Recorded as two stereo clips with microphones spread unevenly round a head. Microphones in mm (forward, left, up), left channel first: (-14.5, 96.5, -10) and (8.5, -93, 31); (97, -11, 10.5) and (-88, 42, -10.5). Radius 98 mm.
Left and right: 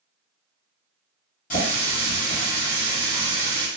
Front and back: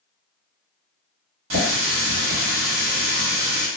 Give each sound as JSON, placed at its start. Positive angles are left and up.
{"t": 1.5, "sound": "a running tap", "azimuth_deg": 150, "distance_m": 1.6}